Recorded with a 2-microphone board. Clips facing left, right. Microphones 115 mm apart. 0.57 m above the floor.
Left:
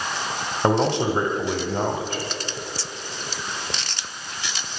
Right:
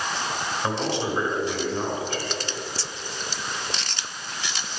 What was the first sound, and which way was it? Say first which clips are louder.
A man speaking: left 8 dB; 55° left (ahead or behind).